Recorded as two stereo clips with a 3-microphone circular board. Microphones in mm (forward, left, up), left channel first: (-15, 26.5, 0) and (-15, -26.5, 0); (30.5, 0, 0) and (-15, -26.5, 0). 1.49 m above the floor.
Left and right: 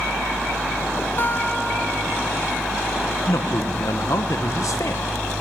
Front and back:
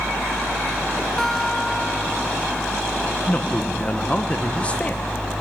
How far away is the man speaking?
About 1.3 m.